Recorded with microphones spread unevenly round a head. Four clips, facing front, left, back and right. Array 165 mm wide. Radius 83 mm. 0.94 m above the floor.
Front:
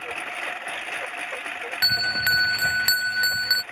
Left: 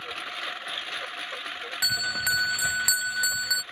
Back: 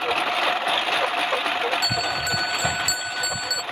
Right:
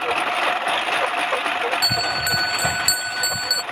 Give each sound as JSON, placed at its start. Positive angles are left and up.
{"t": 0.0, "sound": "a lawn mower", "azimuth_deg": -120}
{"t": 1.8, "sound": "a bell", "azimuth_deg": 5}